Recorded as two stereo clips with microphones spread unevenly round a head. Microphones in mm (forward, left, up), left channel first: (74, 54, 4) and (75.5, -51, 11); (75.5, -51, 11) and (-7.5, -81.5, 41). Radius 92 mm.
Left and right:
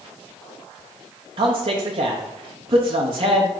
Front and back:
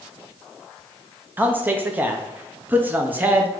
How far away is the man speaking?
About 0.6 m.